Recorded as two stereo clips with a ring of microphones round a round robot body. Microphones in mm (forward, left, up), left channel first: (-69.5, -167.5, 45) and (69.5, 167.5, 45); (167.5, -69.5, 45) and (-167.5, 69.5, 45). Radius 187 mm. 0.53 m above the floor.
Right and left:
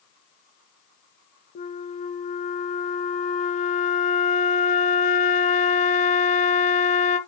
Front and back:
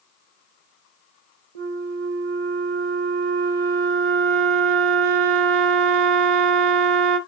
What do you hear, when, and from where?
1.6 s a flute: 175° left, 1.1 m